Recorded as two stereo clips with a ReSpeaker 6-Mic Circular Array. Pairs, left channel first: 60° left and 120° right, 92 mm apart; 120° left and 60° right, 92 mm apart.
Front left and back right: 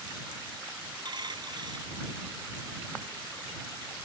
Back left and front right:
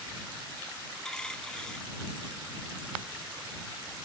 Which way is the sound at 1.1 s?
160° right.